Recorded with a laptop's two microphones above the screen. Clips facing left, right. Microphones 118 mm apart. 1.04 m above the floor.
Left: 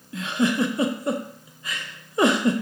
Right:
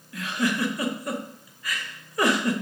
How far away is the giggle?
About 0.6 m.